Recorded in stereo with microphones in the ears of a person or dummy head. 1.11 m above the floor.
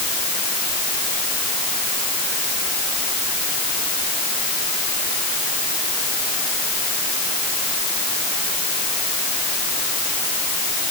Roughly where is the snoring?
No snoring in this recording.